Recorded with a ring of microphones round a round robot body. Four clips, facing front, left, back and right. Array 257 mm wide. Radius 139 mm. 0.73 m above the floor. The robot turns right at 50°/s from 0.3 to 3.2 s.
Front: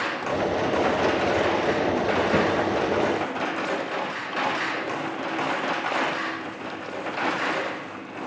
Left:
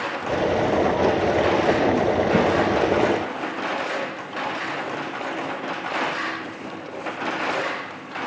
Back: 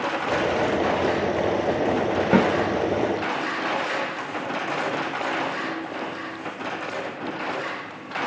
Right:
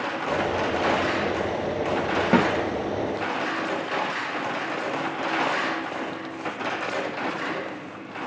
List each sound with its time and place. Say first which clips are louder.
2.3 s a snare drum: right 2 dB, back 6 dB; 145° right, 4 m; by 2.5 s 140° right, 4 m